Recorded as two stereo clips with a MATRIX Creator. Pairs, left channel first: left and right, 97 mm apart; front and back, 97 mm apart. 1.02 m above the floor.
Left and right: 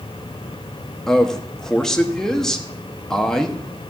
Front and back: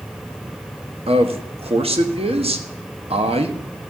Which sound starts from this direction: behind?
A man speaking, at 1.1 s.